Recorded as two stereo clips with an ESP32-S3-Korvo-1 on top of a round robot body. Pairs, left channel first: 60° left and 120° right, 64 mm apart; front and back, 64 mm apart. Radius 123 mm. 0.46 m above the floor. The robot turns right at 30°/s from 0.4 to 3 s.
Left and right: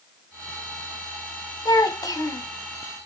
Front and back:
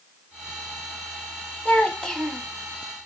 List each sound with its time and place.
1.6 s a child speaking: 65° left, 1.5 m; by 2.5 s 90° left, 1.5 m